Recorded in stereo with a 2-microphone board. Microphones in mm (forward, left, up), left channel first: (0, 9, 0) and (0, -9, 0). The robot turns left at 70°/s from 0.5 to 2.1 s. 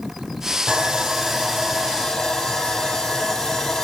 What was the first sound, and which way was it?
Sawing, 130° right.